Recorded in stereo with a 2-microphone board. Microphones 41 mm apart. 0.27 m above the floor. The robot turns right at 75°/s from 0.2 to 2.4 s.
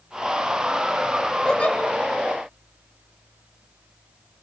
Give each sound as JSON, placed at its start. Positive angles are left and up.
{"t": 1.4, "sound": "a giggle", "side_deg": 20, "distance_m": 2.0}